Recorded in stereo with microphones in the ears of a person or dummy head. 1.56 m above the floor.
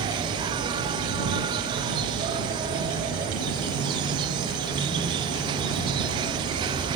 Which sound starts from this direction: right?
An insect, at 0.0 s.